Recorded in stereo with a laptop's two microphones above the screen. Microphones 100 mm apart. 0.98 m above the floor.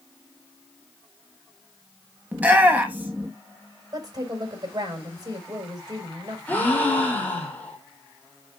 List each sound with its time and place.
2.3 s a shout: 15° right (ahead or behind), 1.0 m
3.9 s a woman speaking: 40° right (ahead or behind), 5 m
6.5 s a gasp: 15° left (ahead or behind), 3 m